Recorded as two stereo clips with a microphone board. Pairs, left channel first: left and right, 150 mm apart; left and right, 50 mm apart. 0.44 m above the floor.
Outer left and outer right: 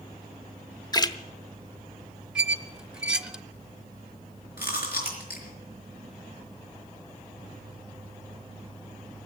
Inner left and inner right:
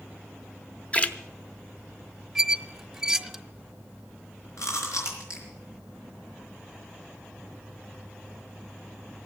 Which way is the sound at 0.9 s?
25° left (ahead or behind).